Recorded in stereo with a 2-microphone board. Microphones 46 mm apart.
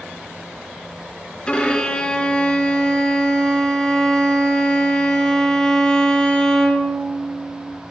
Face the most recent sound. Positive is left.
turn(degrees=20)  # may be behind; listen again after turning